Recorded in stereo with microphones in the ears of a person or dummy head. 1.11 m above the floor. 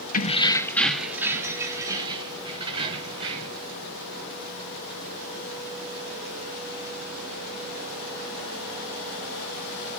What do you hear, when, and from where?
0.1 s keys jangling: 40° left (ahead or behind), 0.8 m; by 3.6 s 35° right (ahead or behind), 3.5 m